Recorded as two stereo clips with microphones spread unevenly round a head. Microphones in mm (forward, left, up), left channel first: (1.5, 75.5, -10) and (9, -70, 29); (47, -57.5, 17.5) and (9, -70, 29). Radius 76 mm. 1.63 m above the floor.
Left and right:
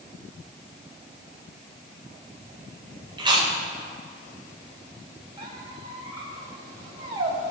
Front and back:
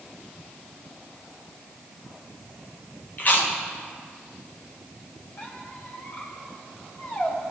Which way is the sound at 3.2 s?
25° right.